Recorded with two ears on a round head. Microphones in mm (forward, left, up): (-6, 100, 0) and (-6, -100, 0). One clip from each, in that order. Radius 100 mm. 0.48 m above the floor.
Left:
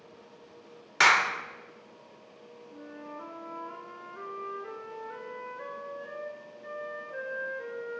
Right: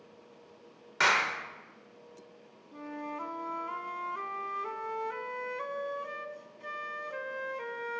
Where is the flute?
60° right (ahead or behind), 0.6 m.